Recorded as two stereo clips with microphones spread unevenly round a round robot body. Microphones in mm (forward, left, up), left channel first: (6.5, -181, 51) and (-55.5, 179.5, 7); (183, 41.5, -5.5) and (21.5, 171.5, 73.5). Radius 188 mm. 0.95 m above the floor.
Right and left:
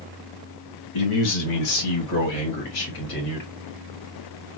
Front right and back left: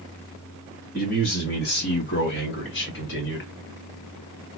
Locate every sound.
0.9 s a man speaking: 90° right, 2 m; by 3.5 s 25° right, 1.8 m